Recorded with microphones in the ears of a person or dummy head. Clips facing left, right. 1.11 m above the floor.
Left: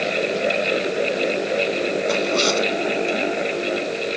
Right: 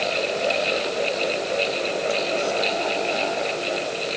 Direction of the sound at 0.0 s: 35° left (ahead or behind).